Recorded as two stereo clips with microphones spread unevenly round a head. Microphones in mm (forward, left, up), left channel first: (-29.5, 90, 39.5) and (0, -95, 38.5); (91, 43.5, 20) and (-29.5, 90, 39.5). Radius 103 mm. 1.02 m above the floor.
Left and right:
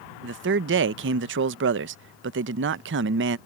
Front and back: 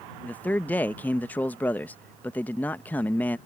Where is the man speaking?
100° right.